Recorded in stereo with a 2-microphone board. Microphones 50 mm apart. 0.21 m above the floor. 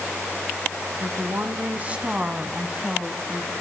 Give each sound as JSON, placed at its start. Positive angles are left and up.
{"t": 1.0, "sound": "a woman speaking", "side_deg": -45, "distance_m": 1.7}